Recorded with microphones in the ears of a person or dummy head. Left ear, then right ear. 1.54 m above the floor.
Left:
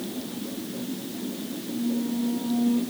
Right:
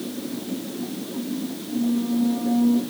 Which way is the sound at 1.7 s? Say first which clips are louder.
Right 4 dB; 50° right (ahead or behind).